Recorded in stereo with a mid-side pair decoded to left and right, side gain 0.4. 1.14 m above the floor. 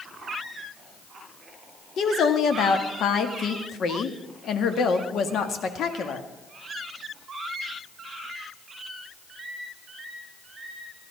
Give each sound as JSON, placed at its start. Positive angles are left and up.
{"t": 2.0, "sound": "a woman speaking", "azimuth_deg": 65, "distance_m": 1.7}